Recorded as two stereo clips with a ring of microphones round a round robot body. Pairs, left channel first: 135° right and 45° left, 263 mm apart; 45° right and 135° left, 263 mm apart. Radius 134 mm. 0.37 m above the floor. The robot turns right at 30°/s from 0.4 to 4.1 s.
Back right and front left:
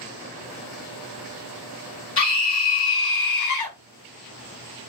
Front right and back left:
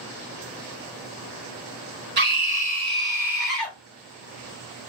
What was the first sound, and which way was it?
A scream, 175° right.